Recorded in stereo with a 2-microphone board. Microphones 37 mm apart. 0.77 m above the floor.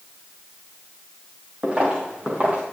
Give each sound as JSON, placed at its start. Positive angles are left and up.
{"t": 1.6, "sound": "footsteps", "side_deg": -30, "distance_m": 4.5}